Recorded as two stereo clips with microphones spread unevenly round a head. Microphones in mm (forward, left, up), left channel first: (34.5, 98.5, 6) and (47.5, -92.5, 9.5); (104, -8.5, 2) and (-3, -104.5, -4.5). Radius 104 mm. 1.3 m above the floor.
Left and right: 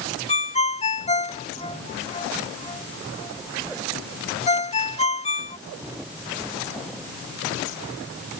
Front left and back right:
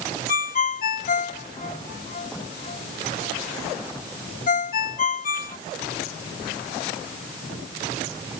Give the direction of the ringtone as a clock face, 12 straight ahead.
11 o'clock.